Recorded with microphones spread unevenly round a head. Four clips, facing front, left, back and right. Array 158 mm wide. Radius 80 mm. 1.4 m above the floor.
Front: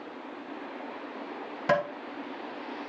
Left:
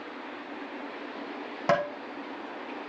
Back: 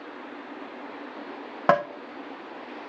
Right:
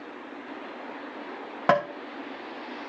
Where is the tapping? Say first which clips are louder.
Right 3 dB, back 5 dB; 160° right, 1.4 m.